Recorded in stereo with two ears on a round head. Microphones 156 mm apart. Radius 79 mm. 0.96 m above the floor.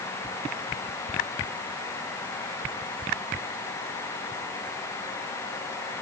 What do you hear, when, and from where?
Only background noise.